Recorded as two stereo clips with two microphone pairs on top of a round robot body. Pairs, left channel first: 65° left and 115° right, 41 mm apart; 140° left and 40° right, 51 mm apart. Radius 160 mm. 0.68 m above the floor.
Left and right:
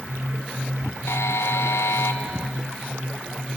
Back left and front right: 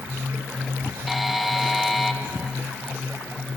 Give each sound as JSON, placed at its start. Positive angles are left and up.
{"t": 1.1, "sound": "a buzzer", "azimuth_deg": 50, "distance_m": 1.8}